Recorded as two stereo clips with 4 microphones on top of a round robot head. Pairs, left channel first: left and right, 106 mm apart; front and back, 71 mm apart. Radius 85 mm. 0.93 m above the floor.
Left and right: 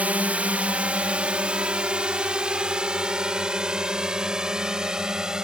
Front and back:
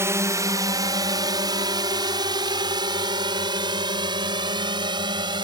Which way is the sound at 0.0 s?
160° right.